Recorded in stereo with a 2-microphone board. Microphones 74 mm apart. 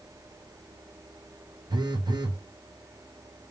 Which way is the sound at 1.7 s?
85° right.